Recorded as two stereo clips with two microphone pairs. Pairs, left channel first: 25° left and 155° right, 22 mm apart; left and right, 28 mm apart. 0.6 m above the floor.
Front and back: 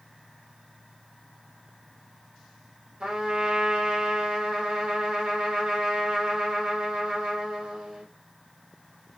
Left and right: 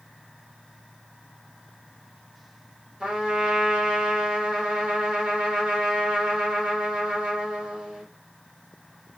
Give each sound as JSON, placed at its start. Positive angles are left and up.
{"t": 3.0, "sound": "a trumpet", "azimuth_deg": -150, "distance_m": 1.2}